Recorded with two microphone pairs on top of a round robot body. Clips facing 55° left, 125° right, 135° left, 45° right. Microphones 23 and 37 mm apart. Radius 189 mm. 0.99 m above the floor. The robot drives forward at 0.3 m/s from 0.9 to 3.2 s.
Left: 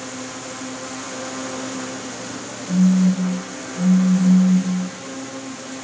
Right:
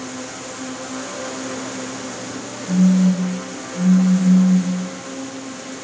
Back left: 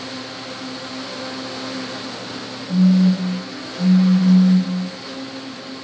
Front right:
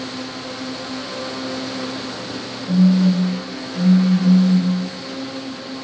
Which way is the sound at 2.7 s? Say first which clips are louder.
Right 1 dB, even; 105° right.